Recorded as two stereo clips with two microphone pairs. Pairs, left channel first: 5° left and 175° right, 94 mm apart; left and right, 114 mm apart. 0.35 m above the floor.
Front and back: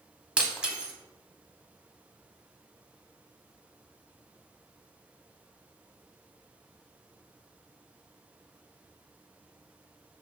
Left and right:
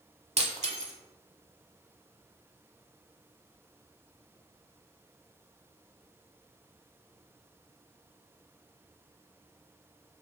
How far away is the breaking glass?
About 0.8 m.